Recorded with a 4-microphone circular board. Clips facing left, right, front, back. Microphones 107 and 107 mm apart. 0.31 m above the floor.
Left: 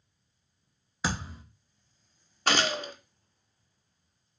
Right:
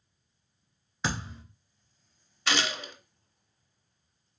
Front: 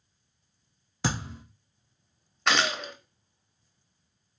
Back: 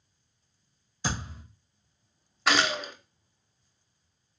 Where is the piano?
No piano in this recording.